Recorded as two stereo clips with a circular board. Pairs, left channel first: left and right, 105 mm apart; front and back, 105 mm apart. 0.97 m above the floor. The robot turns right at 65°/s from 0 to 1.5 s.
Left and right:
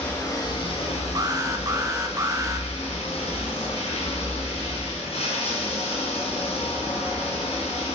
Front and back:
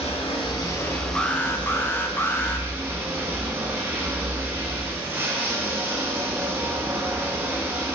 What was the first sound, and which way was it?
Running water, 10° left.